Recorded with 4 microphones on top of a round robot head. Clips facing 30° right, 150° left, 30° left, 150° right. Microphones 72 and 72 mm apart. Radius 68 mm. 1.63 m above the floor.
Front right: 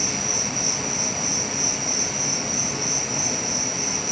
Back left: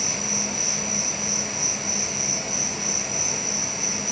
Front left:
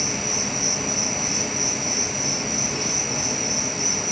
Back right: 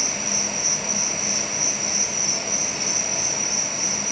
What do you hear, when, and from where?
0.0 s an insect: 10° left, 3.5 m